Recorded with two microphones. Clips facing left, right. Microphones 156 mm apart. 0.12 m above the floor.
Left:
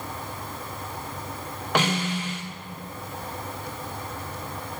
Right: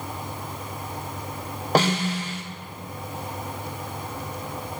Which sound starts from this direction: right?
A snare drum, at 1.8 s.